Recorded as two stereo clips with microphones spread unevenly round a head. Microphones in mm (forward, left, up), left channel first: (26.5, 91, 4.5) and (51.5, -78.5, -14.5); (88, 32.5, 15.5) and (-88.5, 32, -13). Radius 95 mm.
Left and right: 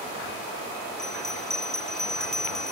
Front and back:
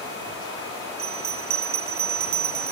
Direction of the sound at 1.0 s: 175° right.